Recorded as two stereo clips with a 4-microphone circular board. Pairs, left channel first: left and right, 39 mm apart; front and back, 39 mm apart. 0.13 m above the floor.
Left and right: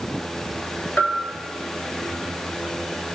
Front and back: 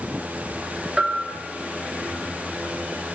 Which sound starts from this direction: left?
A bell, at 1.0 s.